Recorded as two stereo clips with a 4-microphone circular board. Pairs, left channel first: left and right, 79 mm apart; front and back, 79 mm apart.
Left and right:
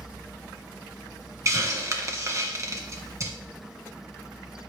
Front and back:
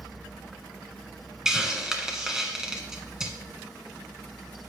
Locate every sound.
1.4 s a hiss: 100° right, 1.5 m